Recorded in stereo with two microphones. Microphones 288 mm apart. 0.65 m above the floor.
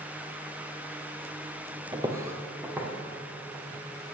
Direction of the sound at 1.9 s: 15° right (ahead or behind).